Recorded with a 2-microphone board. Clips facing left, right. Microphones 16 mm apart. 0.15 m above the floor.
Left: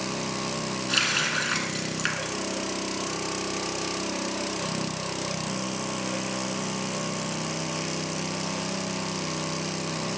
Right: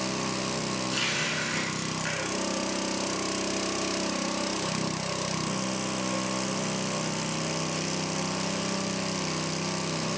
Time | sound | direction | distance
0.9 | a running tap | 40° left (ahead or behind) | 1.0 m